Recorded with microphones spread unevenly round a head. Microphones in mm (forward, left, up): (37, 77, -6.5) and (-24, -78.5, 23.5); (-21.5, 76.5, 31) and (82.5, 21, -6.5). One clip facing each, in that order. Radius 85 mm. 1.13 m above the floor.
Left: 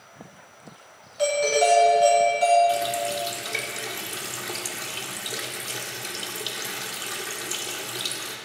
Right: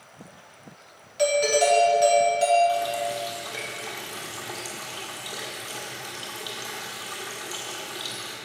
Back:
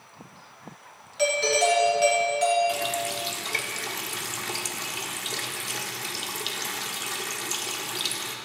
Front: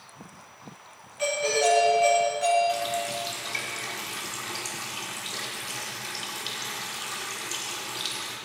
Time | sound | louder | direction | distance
1.2 | a doorbell | even, back 2 dB | 175° right | 4 m
2.7 | a running tap | left 1 dB, front 1 dB | 135° left | 1.6 m